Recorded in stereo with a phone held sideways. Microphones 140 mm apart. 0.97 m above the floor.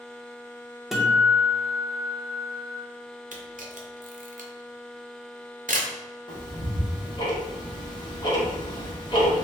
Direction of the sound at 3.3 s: 70° right (ahead or behind).